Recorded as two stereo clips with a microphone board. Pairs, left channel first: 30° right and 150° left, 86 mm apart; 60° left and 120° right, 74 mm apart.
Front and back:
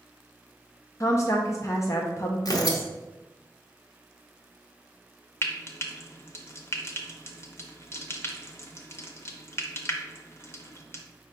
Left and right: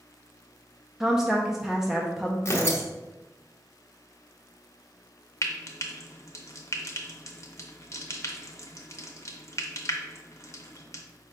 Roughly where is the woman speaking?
Ahead right.